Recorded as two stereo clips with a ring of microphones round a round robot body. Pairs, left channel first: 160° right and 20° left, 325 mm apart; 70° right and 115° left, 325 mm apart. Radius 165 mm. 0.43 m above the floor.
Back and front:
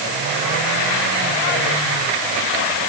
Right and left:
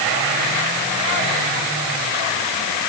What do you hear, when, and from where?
Only background noise.